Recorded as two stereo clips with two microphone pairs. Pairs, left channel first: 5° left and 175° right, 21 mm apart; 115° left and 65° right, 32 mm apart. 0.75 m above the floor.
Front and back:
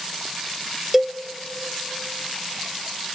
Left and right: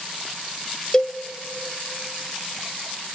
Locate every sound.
0.9 s a cowbell: 140° left, 0.8 m